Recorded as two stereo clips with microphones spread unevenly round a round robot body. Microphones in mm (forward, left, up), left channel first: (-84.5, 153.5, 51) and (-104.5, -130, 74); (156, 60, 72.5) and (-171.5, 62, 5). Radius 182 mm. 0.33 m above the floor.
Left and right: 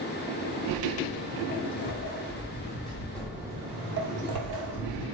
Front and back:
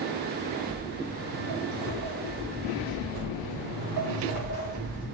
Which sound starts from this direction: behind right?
Footsteps, at 0.7 s.